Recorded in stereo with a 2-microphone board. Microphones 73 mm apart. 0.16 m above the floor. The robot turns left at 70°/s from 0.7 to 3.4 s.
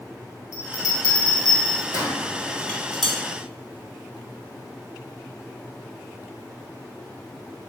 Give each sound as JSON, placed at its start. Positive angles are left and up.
{"t": 0.5, "sound": "a bell", "side_deg": 45, "distance_m": 1.3}
{"t": 2.6, "sound": "dishes clattering", "side_deg": 15, "distance_m": 0.7}